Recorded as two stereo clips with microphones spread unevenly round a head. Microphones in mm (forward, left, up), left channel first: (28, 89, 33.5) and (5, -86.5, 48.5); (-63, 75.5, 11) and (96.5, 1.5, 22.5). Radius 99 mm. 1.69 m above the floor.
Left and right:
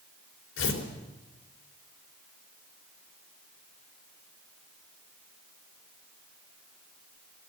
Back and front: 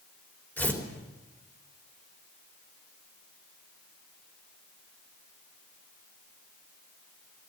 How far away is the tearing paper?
About 4 m.